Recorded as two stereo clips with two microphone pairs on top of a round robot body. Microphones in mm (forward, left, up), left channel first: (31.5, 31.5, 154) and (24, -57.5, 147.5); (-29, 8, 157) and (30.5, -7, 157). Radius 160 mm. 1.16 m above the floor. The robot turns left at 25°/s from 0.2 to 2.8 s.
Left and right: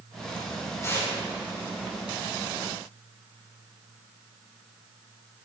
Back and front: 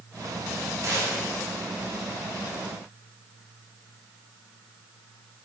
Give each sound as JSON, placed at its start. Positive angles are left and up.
{"t": 0.8, "sound": "tearing paper", "azimuth_deg": 25, "distance_m": 4.5}